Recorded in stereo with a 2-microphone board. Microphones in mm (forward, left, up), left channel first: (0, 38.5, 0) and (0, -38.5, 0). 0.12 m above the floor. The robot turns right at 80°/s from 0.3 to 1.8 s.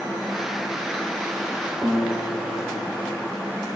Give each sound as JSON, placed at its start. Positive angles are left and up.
{"t": 1.8, "sound": "a guitar", "side_deg": 5, "distance_m": 3.0}